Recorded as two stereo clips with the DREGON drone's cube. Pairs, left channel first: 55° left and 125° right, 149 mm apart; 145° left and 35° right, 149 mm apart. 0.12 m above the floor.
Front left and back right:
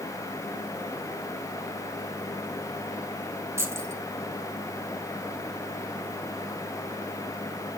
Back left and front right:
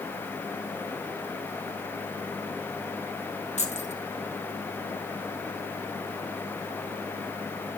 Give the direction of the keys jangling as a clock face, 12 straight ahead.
6 o'clock.